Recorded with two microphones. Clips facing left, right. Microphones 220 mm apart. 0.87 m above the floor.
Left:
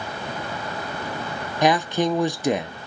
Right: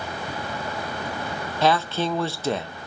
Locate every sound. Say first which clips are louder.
1.6 s a man speaking: left 2 dB; 15° left (ahead or behind), 0.6 m